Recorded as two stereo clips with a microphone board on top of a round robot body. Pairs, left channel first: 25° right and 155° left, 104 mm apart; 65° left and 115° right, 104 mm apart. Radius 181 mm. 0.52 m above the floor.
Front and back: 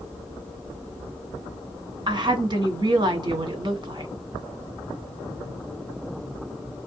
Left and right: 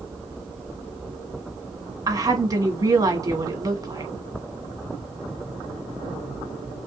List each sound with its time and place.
2.1 s a woman speaking: 160° right, 2 m